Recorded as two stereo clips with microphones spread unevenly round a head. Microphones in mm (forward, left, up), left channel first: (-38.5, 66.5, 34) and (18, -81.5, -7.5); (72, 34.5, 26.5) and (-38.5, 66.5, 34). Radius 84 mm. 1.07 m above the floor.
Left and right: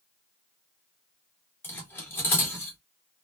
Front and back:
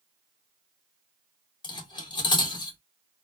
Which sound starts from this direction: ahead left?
Cutlery clinking, at 1.6 s.